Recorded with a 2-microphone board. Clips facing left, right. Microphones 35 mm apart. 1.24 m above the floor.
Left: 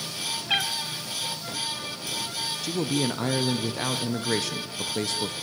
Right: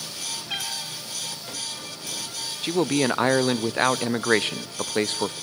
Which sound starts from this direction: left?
A cat meowing, at 0.5 s.